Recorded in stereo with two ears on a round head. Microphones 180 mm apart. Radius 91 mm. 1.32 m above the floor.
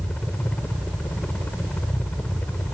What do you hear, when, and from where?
0.0 s a helicopter: 5° left (ahead or behind)